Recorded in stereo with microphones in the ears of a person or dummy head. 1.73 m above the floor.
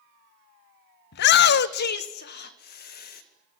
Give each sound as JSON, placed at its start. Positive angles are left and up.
{"t": 1.1, "sound": "a shout", "side_deg": 65, "distance_m": 0.6}